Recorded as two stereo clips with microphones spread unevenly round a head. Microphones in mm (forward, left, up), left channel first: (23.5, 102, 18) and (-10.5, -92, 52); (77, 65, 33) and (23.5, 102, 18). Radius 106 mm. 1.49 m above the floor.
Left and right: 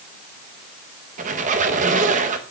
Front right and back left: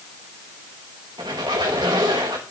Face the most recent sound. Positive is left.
turn(degrees=-145)